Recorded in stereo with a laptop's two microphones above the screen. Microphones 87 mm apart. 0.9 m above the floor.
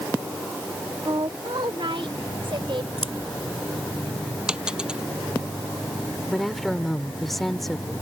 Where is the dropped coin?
10° right (ahead or behind).